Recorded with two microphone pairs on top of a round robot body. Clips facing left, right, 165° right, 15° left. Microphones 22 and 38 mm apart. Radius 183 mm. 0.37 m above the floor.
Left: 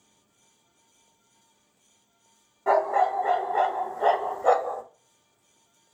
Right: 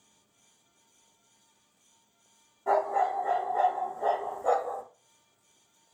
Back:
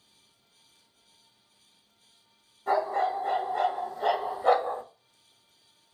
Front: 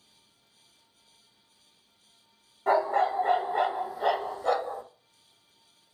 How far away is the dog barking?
About 1.0 m.